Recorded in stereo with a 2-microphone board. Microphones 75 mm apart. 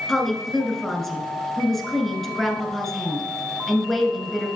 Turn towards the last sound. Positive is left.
turn(degrees=5)  # may be behind; listen again after turning